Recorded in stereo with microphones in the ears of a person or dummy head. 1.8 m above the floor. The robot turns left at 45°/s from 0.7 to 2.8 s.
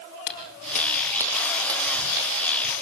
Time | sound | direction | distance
0.3 | footsteps | 45° left (ahead or behind) | 4 m